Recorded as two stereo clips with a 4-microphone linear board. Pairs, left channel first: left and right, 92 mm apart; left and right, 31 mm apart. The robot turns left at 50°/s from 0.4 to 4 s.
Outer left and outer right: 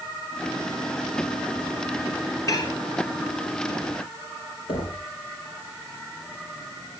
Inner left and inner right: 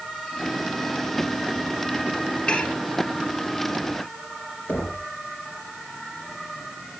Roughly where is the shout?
I don't hear a shout.